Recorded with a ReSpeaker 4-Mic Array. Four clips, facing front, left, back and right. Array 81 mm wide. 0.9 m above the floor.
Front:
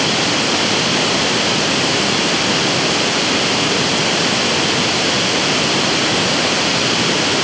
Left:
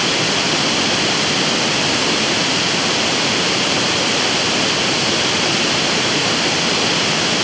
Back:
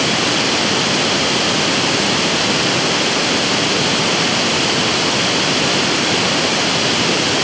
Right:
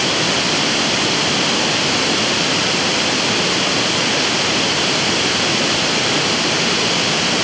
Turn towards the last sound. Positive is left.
No sound to turn to.